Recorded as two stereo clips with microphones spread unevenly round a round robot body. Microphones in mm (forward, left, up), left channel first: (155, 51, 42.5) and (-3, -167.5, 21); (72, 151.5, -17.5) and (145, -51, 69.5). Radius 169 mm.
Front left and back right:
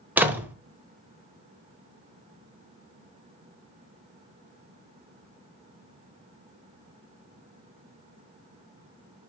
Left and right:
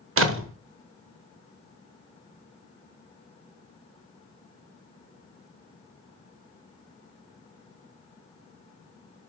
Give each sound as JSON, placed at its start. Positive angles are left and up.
{"t": 0.2, "sound": "a door slam", "azimuth_deg": -50, "distance_m": 1.2}